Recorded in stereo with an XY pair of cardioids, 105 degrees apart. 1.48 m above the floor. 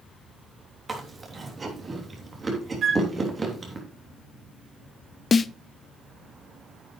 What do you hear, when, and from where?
0.9 s chewing: 30° right, 3 m
2.8 s a flute: 55° right, 1.1 m
5.3 s a snare drum: 35° left, 0.5 m